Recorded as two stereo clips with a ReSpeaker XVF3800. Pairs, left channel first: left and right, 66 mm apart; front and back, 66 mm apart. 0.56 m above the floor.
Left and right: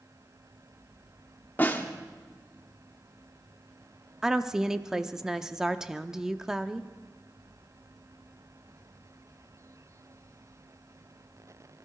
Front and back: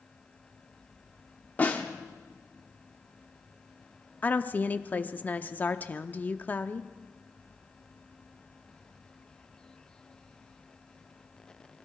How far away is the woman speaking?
About 0.6 m.